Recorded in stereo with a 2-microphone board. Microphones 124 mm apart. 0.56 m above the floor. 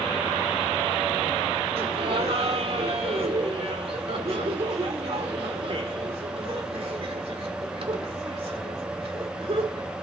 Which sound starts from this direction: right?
Laughter, at 1.8 s.